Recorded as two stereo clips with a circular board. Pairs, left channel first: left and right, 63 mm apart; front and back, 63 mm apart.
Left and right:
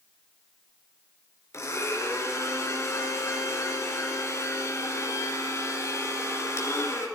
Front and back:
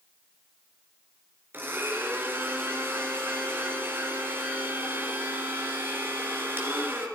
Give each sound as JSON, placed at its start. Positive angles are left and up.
{"t": 1.5, "sound": "a blender", "azimuth_deg": 125, "distance_m": 4.0}